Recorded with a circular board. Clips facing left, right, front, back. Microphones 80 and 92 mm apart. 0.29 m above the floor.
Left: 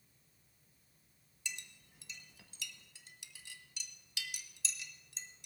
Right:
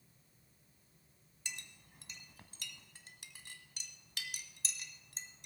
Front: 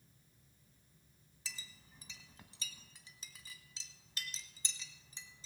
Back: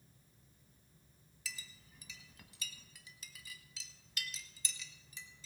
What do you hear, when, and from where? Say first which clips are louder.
1.4 s a clink: left 2 dB, back 1 dB; 55° right, 1.1 m